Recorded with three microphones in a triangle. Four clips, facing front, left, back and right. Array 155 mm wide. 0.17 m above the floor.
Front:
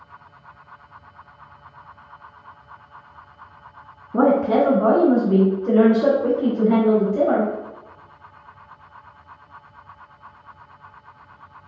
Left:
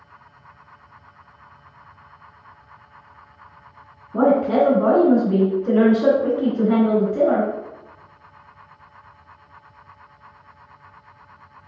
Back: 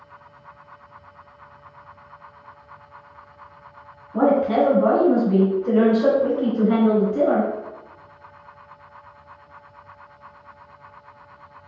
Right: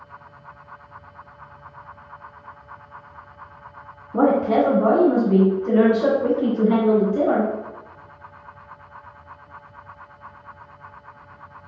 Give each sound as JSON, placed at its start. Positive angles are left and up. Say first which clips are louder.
{"t": 4.1, "sound": "a woman speaking", "louder": "left 1 dB, front 1 dB", "azimuth_deg": -5, "distance_m": 1.9}